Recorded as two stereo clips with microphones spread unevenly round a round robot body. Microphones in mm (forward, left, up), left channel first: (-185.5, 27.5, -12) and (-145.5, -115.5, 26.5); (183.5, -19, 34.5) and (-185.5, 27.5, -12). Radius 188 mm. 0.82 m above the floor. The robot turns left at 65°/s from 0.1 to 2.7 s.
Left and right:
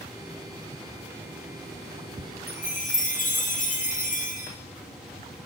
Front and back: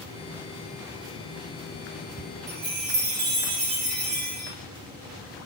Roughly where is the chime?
Behind left.